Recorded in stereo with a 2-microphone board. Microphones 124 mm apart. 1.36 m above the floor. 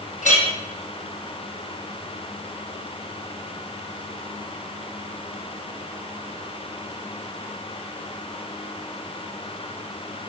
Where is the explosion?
I don't hear an explosion.